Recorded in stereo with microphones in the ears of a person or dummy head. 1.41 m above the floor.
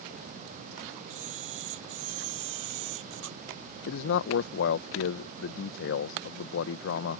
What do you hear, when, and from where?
1.1 s a camera shutter: 80° right
3.9 s a man speaking: 80° left